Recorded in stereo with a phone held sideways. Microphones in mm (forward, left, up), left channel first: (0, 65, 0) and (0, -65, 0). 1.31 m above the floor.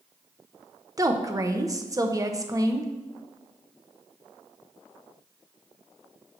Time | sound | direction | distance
1.0 | a woman speaking | 25° right (ahead or behind) | 0.7 m